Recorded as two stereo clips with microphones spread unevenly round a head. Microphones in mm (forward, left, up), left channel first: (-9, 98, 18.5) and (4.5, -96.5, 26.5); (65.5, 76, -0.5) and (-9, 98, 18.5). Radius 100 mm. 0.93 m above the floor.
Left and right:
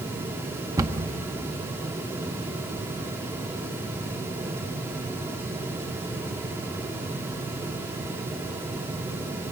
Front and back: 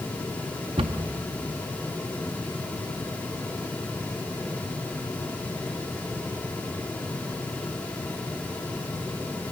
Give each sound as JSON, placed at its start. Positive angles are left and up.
{"t": 0.8, "sound": "a cupboard door", "azimuth_deg": -160, "distance_m": 0.7}